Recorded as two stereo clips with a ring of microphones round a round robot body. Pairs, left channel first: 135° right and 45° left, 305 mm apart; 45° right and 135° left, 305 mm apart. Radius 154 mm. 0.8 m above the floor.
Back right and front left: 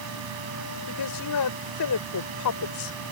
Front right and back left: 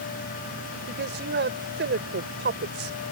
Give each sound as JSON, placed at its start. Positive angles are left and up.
{"t": 0.9, "sound": "a woman speaking", "azimuth_deg": -170}